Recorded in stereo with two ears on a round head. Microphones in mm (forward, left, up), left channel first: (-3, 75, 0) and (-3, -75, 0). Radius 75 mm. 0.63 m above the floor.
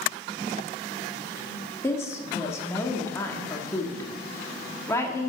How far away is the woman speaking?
About 1.4 m.